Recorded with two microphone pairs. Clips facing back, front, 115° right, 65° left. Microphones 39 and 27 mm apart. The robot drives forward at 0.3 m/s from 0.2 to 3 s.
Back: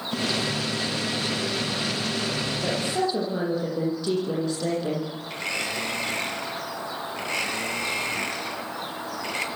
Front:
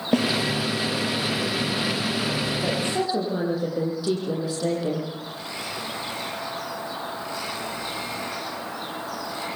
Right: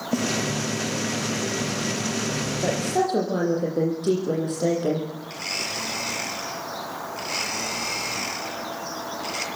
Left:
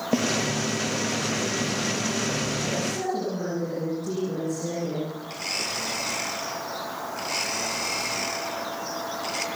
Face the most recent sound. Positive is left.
turn(degrees=160)